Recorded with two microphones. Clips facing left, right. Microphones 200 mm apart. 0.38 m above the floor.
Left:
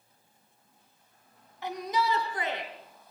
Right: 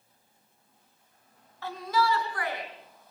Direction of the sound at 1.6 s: 15° left (ahead or behind).